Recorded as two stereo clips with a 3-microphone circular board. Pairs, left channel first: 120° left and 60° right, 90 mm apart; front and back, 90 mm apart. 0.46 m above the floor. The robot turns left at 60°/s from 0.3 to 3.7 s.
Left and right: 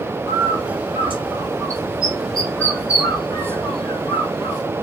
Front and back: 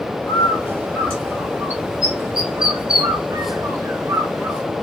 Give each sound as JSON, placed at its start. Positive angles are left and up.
{"t": 0.3, "sound": "a bird", "azimuth_deg": -25, "distance_m": 1.6}